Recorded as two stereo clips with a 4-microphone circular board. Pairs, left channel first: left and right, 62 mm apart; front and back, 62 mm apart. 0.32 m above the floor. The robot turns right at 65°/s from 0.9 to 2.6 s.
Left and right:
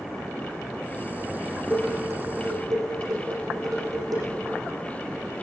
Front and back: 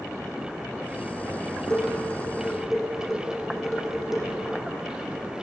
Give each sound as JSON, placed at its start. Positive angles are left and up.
{"t": 1.7, "sound": "dishes clattering", "azimuth_deg": -155, "distance_m": 8.5}